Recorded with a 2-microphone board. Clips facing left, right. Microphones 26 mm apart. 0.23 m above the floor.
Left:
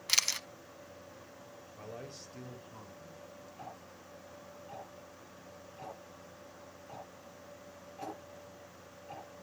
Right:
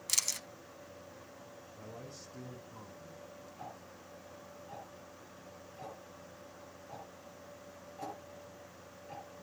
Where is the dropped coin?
I don't hear a dropped coin.